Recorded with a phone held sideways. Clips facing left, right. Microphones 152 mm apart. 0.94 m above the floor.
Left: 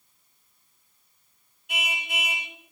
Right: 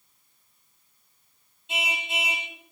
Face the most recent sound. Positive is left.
turn(degrees=-25)  # may be behind; listen again after turning